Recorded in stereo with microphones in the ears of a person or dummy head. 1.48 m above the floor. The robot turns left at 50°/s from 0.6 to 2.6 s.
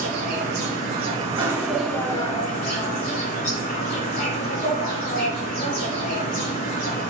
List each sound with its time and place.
0.0 s an insect: 120° right, 0.9 m; by 7.1 s 140° left, 0.9 m